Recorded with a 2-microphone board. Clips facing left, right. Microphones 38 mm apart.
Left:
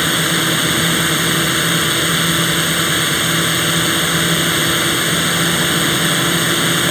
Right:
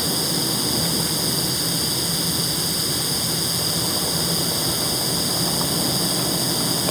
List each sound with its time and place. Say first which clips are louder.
0.0 s a drone: left 9 dB; 60° left (ahead or behind)